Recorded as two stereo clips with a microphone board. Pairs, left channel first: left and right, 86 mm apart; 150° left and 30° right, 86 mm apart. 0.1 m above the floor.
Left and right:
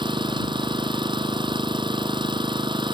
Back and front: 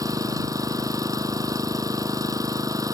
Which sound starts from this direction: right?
An engine running, at 0.0 s.